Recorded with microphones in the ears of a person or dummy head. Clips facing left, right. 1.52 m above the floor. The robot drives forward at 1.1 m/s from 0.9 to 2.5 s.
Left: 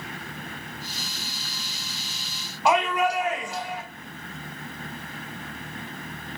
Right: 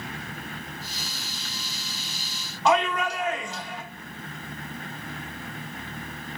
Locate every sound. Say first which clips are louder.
2.6 s a shout: left 1 dB; 10° left (ahead or behind), 1.5 m